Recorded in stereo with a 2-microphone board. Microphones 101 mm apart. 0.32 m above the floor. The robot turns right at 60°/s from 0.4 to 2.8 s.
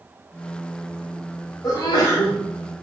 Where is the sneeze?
70° left, 1.6 m; by 2.4 s 115° left, 1.6 m.